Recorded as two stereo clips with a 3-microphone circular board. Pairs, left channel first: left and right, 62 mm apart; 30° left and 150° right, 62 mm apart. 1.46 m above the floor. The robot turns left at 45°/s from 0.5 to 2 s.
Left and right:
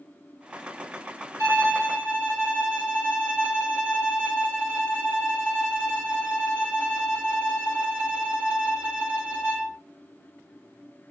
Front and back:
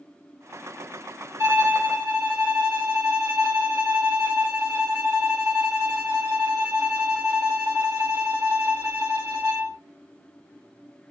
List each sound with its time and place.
1.4 s a violin: 125° right, 2.5 m; by 9.8 s 150° right, 2.5 m